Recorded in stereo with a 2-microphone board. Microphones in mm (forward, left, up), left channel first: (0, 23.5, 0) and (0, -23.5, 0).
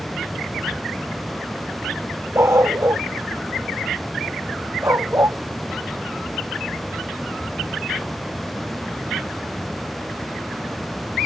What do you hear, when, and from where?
2.4 s a dog barking: 75° right (ahead or behind)